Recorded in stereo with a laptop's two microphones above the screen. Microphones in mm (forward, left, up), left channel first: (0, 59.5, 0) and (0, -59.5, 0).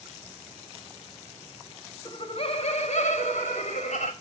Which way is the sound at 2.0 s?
40° left (ahead or behind).